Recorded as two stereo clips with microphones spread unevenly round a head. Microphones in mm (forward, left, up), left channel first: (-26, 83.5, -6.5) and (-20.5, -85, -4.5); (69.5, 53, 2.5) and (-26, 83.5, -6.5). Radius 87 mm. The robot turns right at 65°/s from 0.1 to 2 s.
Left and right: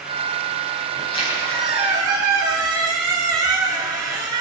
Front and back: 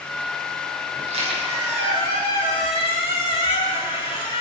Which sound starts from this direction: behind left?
A squeak, at 1.0 s.